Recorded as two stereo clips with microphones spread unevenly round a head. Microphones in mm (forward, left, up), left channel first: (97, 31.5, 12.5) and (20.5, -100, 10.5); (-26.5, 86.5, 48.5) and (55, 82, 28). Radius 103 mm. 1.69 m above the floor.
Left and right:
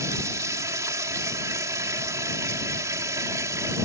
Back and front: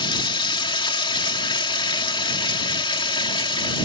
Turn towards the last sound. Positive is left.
turn(degrees=165)